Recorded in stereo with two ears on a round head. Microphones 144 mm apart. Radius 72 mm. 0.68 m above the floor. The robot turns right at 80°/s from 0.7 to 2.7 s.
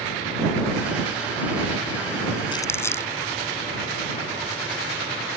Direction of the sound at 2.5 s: 30° left (ahead or behind).